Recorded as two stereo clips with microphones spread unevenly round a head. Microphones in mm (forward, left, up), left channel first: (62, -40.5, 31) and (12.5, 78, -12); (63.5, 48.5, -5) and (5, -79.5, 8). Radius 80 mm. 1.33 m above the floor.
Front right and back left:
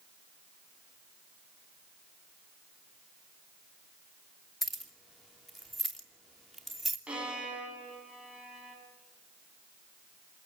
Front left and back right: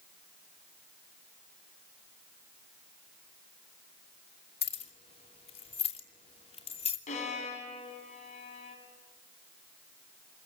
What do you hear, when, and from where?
4.6 s keys jangling: 20° left, 2.5 m
7.1 s a violin: 30° left, 7.5 m